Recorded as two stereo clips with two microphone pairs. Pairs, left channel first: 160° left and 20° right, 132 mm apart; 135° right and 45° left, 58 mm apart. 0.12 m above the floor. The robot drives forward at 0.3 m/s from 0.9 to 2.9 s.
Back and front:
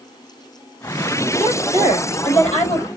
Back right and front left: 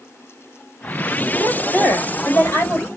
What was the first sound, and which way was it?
A woman speaking, 175° right.